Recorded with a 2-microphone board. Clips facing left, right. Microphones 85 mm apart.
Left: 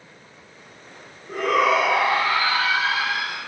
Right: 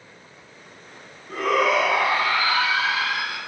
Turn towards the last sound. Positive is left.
turn(degrees=30)  # may be behind; listen again after turning